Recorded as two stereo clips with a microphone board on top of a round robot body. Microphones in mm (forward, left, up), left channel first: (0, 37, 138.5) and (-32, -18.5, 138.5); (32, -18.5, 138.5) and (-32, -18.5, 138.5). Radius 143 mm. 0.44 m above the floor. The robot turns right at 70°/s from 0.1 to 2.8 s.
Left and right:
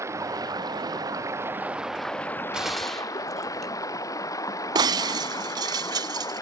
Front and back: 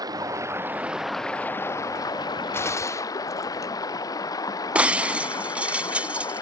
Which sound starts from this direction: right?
Breaking glass, at 4.8 s.